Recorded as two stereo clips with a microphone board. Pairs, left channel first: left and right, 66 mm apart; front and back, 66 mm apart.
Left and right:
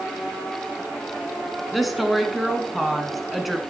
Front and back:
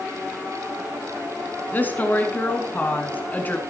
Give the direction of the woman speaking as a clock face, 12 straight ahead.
12 o'clock.